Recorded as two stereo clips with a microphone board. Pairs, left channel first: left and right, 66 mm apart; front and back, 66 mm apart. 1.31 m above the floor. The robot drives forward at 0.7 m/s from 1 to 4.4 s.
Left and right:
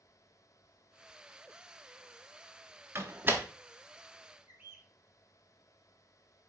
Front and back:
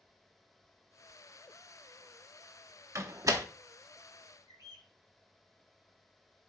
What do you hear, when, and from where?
3.0 s a door slam: 135° right, 1.0 m; by 3.5 s 150° right, 1.3 m
4.5 s a bird: 160° right, 4 m